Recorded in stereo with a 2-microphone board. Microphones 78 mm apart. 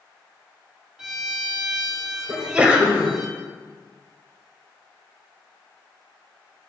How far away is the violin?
About 1.5 m.